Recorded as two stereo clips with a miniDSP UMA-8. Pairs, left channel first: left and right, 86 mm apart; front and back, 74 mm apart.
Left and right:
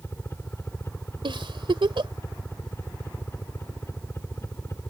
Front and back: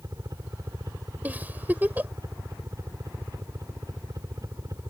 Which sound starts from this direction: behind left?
A helicopter, at 0.0 s.